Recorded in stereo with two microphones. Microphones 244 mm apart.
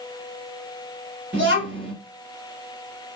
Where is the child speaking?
50° right (ahead or behind), 1.4 m.